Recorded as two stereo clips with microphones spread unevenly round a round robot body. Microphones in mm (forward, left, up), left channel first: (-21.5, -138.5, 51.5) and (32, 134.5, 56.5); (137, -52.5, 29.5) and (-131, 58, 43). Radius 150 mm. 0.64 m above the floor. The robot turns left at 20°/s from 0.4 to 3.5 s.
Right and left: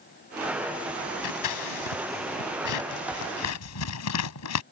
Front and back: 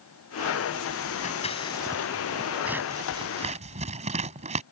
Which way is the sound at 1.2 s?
90° right.